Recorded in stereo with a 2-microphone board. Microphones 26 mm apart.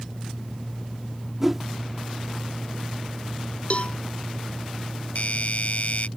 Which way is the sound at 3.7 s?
50° left (ahead or behind).